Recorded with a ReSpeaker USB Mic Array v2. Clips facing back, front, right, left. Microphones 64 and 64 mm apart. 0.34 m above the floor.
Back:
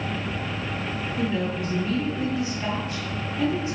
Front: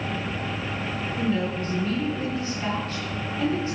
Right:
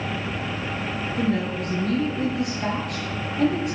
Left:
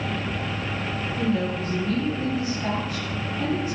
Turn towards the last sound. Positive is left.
turn(degrees=-110)